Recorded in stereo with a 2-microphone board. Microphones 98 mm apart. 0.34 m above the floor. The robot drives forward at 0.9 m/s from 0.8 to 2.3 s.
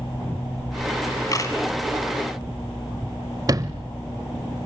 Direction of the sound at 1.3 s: 35° left (ahead or behind).